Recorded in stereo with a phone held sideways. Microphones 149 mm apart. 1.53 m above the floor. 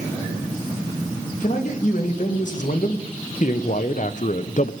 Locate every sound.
1.4 s a man speaking: 55° left (ahead or behind), 2.5 m